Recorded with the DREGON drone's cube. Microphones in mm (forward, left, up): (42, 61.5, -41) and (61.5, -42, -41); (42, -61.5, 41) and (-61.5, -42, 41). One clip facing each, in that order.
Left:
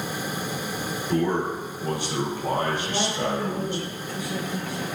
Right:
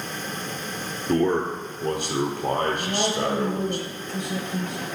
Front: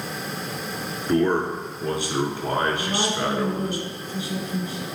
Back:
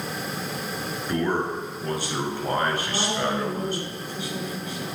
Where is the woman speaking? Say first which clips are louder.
Right 2 dB, front 2 dB; 45° right, 1.4 m.